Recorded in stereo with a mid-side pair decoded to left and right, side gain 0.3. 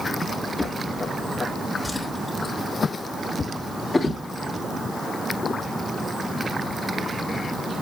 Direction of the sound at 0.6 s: 30° left.